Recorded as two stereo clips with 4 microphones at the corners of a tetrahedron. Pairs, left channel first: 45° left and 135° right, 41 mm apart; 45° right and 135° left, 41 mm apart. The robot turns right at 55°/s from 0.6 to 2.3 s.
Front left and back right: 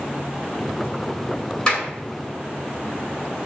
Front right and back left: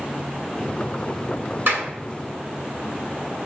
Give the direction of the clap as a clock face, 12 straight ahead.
8 o'clock.